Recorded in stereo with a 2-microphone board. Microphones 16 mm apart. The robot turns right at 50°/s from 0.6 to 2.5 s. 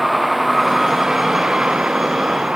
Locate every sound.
0.0 s a vehicle: 5° right (ahead or behind); by 2.6 s 65° right (ahead or behind)